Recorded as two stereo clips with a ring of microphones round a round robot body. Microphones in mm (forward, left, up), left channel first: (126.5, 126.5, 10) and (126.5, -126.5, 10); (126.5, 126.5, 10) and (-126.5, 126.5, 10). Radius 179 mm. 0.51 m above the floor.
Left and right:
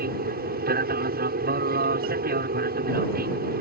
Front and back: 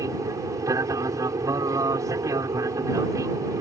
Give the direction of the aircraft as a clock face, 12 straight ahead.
4 o'clock.